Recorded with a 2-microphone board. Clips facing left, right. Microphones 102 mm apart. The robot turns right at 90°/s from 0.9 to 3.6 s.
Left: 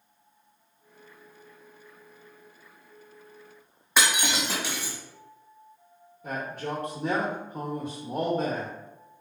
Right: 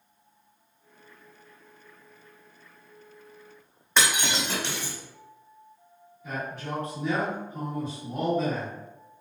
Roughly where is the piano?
I don't hear a piano.